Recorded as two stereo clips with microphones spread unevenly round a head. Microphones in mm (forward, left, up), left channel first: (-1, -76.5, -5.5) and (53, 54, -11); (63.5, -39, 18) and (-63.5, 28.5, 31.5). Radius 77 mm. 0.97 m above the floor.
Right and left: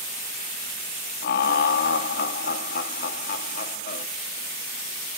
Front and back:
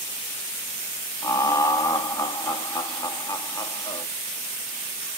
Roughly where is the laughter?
Right.